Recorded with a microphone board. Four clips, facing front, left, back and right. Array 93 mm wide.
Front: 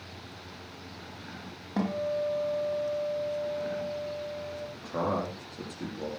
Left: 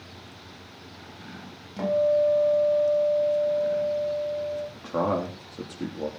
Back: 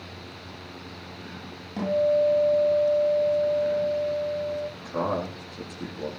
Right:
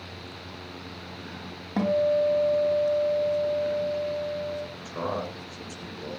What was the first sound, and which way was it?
A guitar, 65° right.